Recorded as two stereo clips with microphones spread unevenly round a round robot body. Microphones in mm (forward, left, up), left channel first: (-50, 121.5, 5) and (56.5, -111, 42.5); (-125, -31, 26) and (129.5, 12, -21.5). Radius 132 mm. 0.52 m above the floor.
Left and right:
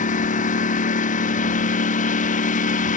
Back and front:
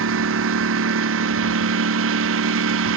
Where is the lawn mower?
55° left.